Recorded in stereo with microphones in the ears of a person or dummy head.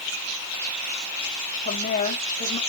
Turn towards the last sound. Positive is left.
turn(degrees=40)  # may be behind; listen again after turning